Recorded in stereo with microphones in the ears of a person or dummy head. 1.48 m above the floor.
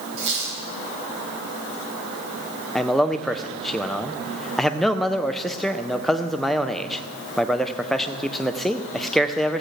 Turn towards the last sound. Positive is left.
turn(degrees=5)  # may be behind; listen again after turning